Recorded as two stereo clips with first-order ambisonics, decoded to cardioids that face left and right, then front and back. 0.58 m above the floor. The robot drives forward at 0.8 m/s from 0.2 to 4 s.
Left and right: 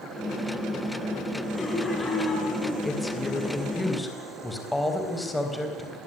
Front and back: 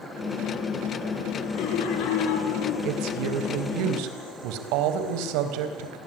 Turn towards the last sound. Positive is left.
turn(degrees=175)